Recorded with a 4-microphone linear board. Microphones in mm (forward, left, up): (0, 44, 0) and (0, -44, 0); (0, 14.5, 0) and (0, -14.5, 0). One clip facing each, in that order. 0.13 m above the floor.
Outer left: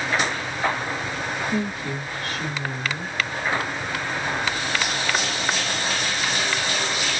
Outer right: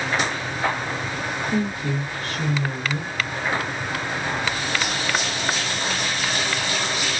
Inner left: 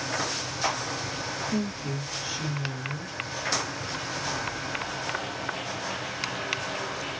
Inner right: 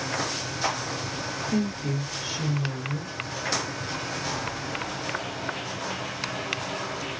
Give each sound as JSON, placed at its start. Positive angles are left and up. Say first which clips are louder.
{"t": 1.5, "sound": "a woman speaking", "louder": "outer right 2 dB, inner right 6 dB", "side_deg": -25, "distance_m": 1.7}